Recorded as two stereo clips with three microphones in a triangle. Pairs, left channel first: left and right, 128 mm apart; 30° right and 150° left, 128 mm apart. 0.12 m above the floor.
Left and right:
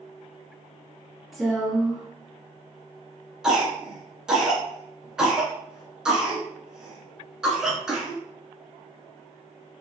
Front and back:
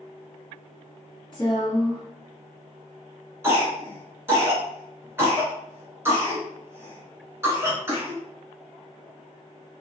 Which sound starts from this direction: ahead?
A woman speaking, at 1.3 s.